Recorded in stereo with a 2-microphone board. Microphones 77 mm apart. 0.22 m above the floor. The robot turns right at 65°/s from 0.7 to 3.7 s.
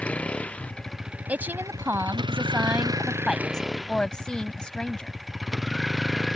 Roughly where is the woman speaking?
Centre.